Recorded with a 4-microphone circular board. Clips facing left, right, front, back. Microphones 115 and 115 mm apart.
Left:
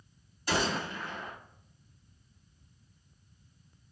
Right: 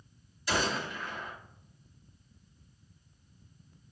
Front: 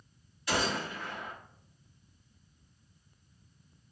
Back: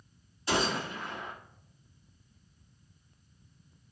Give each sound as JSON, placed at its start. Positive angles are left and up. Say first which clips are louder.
{"t": 0.5, "sound": "a gunshot", "louder": "left 1 dB, back 2 dB", "azimuth_deg": 125, "distance_m": 1.8}